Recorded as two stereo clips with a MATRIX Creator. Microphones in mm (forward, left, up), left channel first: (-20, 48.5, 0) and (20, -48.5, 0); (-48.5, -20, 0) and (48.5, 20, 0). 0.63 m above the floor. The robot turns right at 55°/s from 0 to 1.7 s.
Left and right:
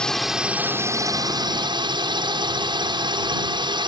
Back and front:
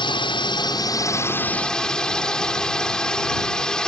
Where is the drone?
170° right; by 3.9 s 75° right.